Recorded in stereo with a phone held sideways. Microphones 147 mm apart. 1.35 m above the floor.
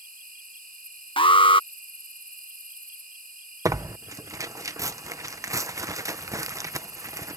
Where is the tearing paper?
20° right (ahead or behind).